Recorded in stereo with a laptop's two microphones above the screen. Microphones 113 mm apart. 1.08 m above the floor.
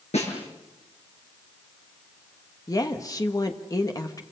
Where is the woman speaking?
30° left (ahead or behind), 1.4 m.